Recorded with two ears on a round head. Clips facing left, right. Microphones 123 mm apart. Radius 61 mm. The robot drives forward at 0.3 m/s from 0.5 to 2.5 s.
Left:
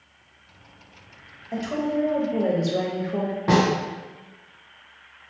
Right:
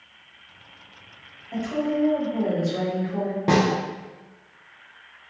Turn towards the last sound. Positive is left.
turn(degrees=-25)  # may be behind; listen again after turning